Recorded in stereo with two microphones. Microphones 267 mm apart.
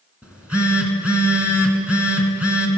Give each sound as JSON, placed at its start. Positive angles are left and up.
{"t": 0.2, "sound": "a phone buzzing", "side_deg": -5, "distance_m": 1.2}